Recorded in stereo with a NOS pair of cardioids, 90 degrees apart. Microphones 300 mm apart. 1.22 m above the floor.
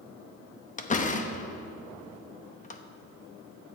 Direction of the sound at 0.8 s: 25° left.